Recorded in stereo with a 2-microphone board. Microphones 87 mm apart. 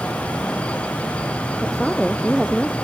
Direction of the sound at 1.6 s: 5° left (ahead or behind).